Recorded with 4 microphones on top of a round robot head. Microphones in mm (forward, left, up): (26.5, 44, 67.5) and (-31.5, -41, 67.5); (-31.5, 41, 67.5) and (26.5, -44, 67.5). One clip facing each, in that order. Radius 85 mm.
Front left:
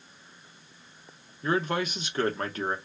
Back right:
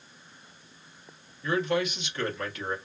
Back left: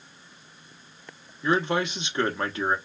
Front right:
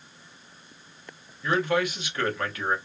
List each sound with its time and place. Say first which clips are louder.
1.4 s a man speaking: even, even; 70° left, 1.0 m